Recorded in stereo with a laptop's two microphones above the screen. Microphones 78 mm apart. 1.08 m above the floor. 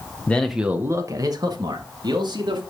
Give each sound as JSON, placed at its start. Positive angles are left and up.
{"t": 0.3, "sound": "a man speaking", "side_deg": 20, "distance_m": 0.9}